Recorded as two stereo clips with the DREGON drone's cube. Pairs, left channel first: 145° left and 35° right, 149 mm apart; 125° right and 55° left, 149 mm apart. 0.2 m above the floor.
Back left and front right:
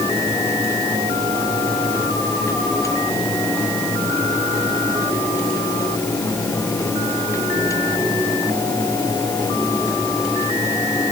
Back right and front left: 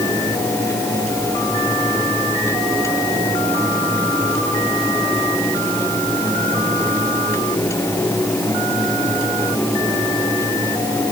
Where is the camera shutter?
I don't hear a camera shutter.